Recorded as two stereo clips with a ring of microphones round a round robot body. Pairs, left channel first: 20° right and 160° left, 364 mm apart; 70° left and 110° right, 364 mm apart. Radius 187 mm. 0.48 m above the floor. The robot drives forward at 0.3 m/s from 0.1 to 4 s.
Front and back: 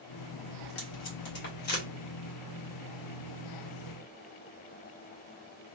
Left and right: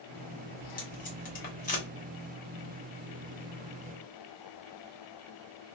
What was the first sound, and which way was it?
Tape being pulled, 10° left.